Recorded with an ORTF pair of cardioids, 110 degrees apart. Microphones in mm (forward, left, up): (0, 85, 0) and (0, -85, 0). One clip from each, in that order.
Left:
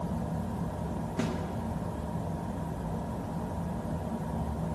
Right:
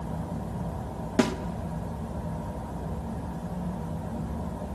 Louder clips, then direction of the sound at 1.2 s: Right 9 dB; 45° right.